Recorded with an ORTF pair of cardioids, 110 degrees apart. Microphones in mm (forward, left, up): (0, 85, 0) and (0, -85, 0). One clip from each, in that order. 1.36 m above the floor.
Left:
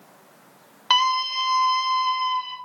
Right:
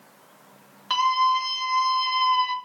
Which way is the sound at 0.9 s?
45° left.